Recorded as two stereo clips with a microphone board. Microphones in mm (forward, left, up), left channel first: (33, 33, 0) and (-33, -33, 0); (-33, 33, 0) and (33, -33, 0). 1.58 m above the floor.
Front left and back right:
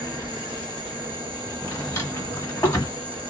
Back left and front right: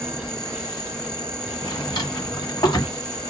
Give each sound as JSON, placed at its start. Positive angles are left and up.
{"t": 0.0, "sound": "an insect", "azimuth_deg": -140, "distance_m": 1.1}
{"t": 1.6, "sound": "a drawer", "azimuth_deg": 100, "distance_m": 1.7}